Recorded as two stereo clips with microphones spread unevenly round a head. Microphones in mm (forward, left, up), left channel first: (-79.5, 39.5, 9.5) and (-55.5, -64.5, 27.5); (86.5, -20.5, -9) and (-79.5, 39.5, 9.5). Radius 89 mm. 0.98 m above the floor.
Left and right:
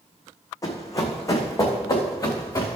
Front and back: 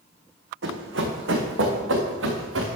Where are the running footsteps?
165° left, 3 m; by 2.8 s 170° left, 4.5 m.